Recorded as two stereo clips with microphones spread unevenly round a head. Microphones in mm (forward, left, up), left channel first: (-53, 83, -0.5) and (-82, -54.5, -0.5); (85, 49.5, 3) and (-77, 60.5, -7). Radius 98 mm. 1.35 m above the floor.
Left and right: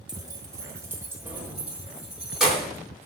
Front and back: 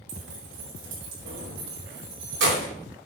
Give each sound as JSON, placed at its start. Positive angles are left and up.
{"t": 0.1, "sound": "keys jangling", "azimuth_deg": -165, "distance_m": 2.5}